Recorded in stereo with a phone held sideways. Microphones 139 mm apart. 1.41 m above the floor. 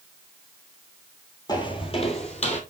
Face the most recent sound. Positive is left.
turn(degrees=55)  # may be behind; listen again after turning